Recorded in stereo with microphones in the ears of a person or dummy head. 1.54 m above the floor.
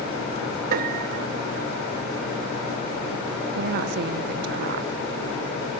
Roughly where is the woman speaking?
Right.